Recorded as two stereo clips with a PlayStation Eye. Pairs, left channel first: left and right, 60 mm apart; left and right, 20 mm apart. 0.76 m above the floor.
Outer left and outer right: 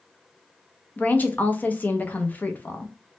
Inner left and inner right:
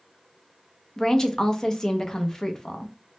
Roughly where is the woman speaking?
Left.